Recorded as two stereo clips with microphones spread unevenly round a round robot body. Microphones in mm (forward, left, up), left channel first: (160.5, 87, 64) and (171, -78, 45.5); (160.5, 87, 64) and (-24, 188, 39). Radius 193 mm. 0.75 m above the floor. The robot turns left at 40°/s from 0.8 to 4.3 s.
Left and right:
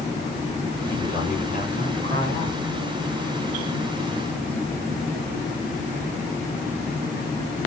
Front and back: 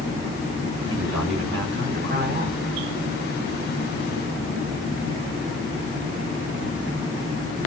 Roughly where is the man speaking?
Behind.